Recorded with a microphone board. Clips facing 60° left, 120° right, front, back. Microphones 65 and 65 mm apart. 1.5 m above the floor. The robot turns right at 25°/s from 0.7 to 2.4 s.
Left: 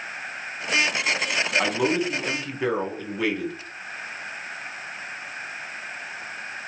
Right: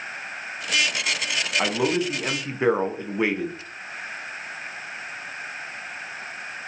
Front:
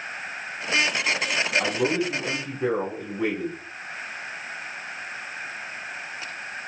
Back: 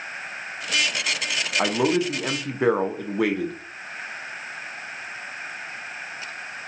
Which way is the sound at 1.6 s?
155° left.